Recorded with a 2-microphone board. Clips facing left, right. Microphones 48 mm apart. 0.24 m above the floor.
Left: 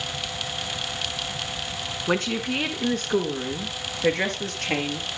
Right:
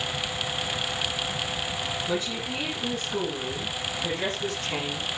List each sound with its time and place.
2.1 s a woman speaking: 60° left (ahead or behind), 3 m; by 5.1 s 65° left (ahead or behind), 5.5 m